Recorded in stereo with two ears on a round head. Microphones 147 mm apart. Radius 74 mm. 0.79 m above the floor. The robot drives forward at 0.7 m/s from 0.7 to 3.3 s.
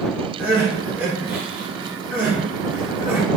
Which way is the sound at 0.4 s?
10° right (ahead or behind).